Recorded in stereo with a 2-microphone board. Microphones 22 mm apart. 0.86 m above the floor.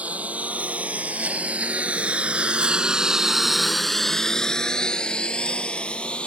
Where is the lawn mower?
80° right; by 6.3 s 55° left (ahead or behind).